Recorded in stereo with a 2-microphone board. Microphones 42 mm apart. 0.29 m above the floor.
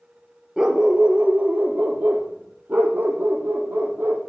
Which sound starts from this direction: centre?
A dog barking, at 0.6 s.